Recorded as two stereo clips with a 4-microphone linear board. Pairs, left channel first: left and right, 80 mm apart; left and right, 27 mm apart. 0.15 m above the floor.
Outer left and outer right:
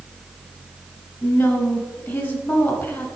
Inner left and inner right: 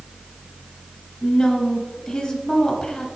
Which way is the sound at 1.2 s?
20° left (ahead or behind).